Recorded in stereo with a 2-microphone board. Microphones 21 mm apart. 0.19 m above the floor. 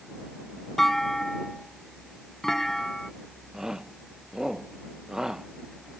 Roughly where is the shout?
Right.